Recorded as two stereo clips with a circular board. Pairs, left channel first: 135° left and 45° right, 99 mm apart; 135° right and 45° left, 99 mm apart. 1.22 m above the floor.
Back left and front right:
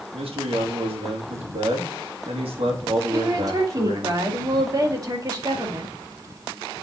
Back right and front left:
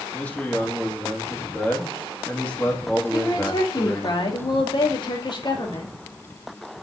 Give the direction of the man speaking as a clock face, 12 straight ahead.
2 o'clock.